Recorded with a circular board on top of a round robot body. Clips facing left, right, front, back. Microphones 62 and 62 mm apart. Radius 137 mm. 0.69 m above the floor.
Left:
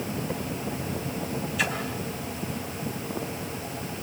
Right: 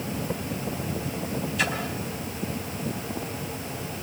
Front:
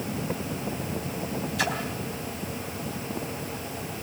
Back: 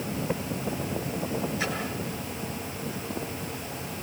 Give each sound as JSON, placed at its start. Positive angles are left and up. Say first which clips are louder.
{"t": 1.6, "sound": "a splash", "louder": "right 1 dB, front 3 dB", "azimuth_deg": 0, "distance_m": 3.5}